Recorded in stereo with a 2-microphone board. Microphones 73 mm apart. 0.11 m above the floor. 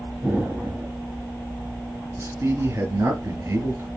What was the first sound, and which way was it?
An explosion, 25° right (ahead or behind).